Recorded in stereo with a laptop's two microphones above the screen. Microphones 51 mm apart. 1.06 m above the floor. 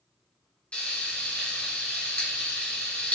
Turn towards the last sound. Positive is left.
turn(degrees=25)  # may be behind; listen again after turning